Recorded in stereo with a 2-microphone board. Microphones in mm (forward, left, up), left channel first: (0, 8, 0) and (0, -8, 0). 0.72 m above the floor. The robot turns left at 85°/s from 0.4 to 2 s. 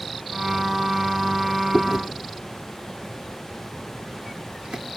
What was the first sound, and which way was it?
Chewing, 40° right (ahead or behind).